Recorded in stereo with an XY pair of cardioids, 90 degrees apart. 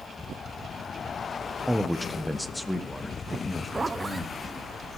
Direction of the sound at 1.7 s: Straight ahead.